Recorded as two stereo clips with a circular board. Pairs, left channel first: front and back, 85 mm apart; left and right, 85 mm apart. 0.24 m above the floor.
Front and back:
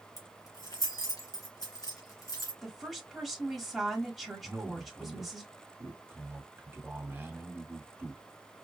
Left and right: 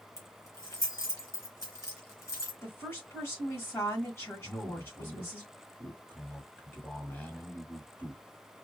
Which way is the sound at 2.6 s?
90° left.